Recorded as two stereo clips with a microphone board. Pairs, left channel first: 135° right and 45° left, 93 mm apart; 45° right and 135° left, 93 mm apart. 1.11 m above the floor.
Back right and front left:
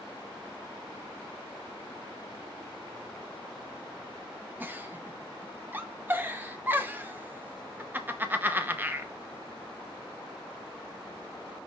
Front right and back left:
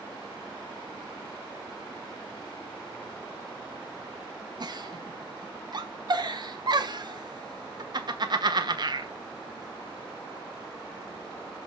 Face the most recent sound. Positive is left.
turn(degrees=110)